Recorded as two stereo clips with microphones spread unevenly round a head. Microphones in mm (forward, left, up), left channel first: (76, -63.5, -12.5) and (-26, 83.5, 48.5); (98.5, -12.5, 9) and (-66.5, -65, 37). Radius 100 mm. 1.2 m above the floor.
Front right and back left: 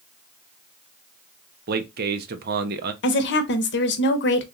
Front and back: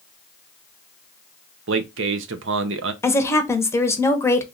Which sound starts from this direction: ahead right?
A woman speaking, at 3.0 s.